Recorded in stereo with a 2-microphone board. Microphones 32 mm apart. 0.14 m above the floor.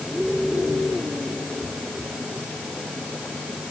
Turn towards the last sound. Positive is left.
No sound to turn to.